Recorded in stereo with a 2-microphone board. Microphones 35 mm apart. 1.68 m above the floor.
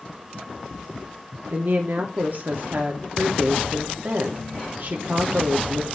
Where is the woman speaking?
55° right (ahead or behind), 0.8 m.